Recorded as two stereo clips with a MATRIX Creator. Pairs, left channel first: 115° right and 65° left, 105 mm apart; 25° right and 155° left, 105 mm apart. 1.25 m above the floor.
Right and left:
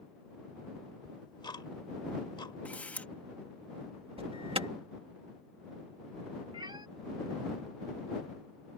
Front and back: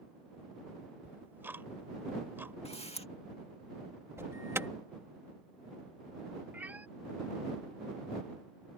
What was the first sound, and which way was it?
Ticking, 135° right.